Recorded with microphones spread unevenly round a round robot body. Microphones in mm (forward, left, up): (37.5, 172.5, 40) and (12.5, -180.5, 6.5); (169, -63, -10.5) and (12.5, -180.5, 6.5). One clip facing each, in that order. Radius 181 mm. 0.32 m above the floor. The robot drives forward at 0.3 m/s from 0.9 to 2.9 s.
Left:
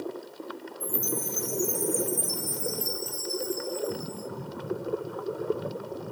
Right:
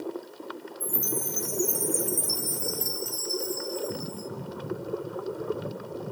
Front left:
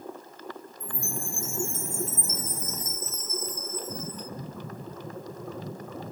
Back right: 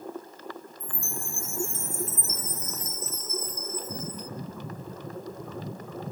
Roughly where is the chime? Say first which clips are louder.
Left 1 dB, front left 5 dB; right.